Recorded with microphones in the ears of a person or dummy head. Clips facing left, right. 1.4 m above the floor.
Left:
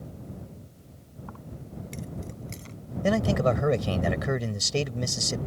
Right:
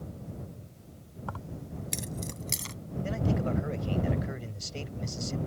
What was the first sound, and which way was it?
Keys jangling, 75° right (ahead or behind).